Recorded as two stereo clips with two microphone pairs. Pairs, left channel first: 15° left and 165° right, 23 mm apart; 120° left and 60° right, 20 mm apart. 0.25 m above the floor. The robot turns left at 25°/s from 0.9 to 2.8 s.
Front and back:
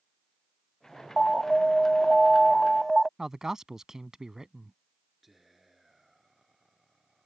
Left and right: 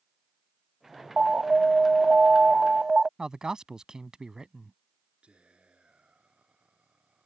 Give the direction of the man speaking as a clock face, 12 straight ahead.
4 o'clock.